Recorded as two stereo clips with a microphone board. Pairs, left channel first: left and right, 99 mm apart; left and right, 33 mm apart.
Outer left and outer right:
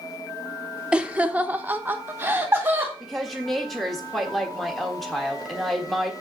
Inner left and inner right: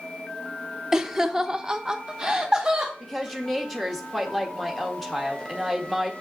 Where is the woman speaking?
Centre (ahead or behind), 1.5 m.